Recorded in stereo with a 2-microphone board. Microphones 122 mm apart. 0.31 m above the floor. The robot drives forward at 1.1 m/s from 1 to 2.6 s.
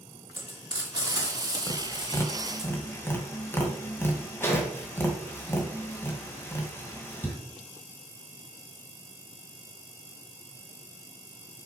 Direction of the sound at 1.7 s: 30° left (ahead or behind).